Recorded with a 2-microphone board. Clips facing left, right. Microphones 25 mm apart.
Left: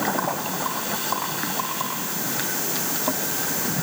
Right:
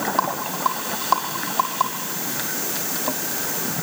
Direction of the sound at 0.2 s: 45° right (ahead or behind).